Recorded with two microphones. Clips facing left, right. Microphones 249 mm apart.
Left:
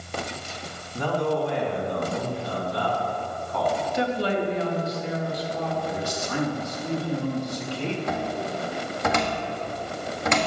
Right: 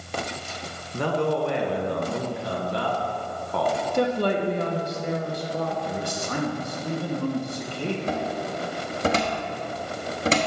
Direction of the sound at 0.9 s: 70° right (ahead or behind).